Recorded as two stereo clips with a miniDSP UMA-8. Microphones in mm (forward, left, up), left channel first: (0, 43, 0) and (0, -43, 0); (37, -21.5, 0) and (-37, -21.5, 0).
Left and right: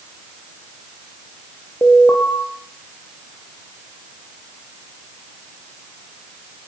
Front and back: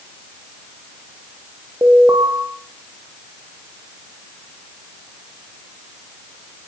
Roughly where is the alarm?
Behind left.